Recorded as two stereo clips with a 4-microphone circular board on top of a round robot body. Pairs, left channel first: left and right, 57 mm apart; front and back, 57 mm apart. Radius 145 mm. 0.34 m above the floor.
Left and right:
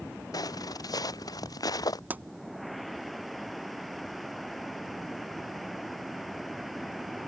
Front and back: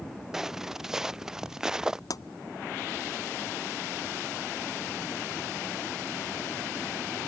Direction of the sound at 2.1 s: 25° right.